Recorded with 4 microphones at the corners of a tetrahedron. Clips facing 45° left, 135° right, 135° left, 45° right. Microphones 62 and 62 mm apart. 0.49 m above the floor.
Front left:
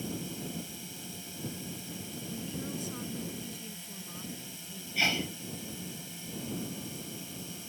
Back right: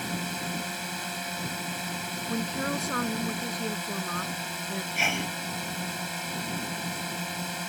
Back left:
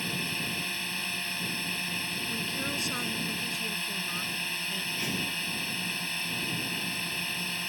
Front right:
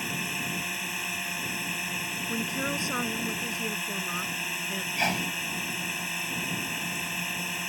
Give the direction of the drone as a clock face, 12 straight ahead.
4 o'clock.